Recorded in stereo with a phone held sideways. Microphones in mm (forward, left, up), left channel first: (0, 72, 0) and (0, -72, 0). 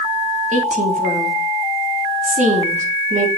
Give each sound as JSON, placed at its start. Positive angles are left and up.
{"t": 0.5, "sound": "a woman speaking", "side_deg": -60, "distance_m": 3.0}